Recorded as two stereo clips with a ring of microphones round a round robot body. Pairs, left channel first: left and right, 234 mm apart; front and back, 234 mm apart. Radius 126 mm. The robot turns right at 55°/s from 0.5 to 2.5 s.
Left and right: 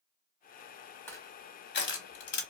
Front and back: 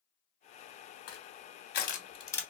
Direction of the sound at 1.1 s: 10° left.